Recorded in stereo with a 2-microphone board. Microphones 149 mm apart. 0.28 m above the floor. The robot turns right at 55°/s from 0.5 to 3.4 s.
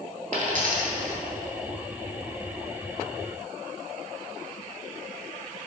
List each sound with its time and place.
0.3 s a dropped coin: 60° right (ahead or behind), 1.8 m; by 1.2 s 80° right, 1.8 m